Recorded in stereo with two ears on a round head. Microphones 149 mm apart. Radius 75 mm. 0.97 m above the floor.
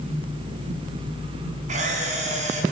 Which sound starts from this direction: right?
A camera shutter, at 1.7 s.